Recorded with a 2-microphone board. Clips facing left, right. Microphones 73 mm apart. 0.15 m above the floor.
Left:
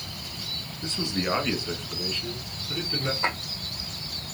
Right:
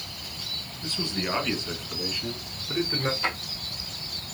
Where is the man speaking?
25° left (ahead or behind), 1.5 m; by 3.1 s 40° right (ahead or behind), 1.4 m.